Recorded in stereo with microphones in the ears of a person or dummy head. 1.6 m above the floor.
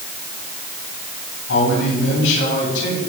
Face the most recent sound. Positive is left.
turn(degrees=75)  # may be behind; listen again after turning